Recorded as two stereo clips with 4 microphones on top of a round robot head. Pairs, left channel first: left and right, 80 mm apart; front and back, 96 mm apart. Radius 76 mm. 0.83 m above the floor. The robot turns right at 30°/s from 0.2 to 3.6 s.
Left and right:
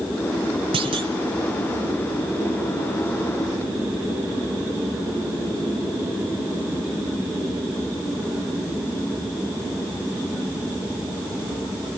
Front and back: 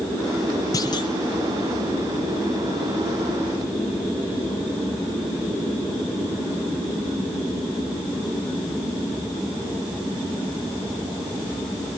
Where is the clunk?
65° right, 1.4 m; by 1.1 s 55° right, 1.4 m.